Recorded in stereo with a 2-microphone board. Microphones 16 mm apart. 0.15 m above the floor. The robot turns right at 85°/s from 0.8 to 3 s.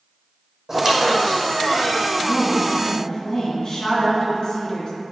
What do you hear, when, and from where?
0.7 s a squeak: 25° right, 1.5 m; by 2.1 s 85° left, 1.5 m
2.2 s a woman speaking: 15° right, 2 m; by 4.9 s 55° left, 2 m